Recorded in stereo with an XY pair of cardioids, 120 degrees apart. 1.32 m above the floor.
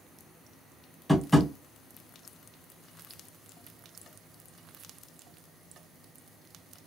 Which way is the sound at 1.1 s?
10° left.